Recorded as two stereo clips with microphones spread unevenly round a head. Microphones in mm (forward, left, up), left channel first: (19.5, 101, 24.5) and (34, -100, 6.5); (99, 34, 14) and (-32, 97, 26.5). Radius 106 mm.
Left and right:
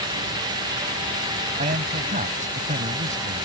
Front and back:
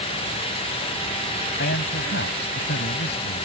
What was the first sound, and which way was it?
A man speaking, 30° right.